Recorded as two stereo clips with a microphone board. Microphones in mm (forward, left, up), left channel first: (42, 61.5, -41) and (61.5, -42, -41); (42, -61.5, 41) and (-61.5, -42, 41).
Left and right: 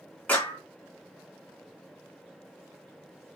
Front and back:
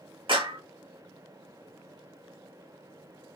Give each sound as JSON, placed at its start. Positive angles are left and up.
{"t": 0.3, "sound": "a clap", "azimuth_deg": 175, "distance_m": 2.0}